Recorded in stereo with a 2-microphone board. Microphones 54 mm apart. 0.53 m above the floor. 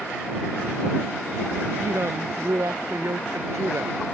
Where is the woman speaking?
65° right (ahead or behind).